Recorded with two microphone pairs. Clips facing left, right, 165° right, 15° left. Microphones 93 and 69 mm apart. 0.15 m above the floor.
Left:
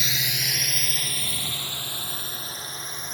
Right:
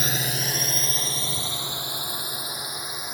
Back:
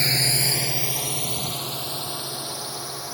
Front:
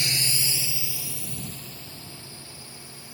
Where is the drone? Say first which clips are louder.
Right 4 dB, back 5 dB; 125° right; by 3.1 s 165° right.